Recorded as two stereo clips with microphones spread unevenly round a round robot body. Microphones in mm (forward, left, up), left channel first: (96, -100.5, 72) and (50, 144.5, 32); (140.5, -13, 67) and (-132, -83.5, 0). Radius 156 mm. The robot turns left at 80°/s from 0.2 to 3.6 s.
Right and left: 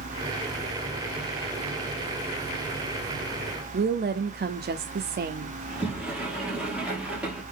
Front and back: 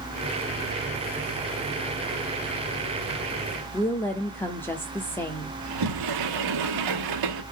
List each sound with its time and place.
3.7 s a woman speaking: 110° left, 0.9 m
5.6 s a sliding door: 170° right, 1.6 m